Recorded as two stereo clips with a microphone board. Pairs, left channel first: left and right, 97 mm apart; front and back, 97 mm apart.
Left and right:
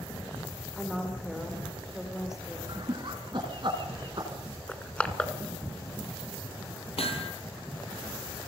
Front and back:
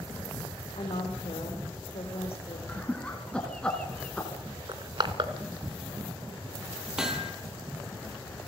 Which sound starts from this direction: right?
Laughter, at 2.7 s.